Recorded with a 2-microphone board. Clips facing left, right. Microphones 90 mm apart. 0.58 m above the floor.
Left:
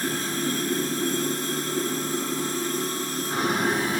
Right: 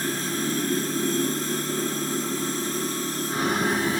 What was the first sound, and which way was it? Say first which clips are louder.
Running water: even; 65° left (ahead or behind).